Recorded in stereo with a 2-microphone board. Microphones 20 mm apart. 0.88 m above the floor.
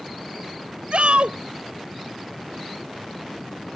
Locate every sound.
0.9 s a shout: 80° right